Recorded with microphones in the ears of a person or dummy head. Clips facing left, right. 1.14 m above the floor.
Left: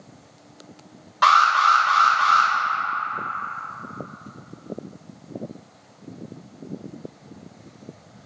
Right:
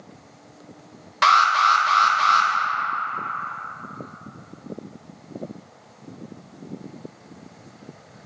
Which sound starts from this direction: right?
An alarm, at 1.2 s.